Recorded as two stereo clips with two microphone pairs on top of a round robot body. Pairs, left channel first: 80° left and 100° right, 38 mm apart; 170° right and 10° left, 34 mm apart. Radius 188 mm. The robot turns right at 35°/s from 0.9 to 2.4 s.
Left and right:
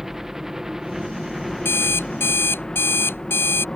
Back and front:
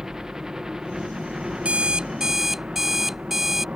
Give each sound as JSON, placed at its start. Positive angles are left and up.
{"t": 0.0, "sound": "a helicopter", "azimuth_deg": -25}
{"t": 1.6, "sound": "an alarm clock", "azimuth_deg": 65}